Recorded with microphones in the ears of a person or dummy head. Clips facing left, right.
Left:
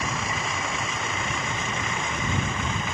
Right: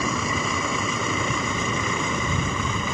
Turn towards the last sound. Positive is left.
turn(degrees=-80)